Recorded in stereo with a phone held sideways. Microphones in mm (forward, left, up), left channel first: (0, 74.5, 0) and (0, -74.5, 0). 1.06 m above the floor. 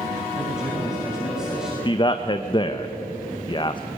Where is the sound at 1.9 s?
30° left (ahead or behind), 0.8 m.